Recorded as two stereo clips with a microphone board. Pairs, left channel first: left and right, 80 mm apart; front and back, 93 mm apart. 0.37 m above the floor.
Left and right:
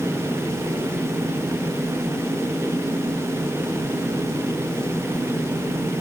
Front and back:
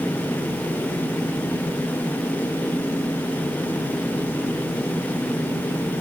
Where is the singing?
No singing in this recording.